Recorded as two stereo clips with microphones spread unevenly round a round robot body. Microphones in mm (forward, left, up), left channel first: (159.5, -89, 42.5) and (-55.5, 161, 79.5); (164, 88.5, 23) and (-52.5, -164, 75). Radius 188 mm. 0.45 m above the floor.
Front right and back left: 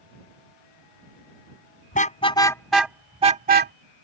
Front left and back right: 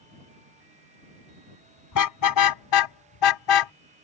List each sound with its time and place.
1.9 s a car horn: 20° left; by 3.7 s 70° left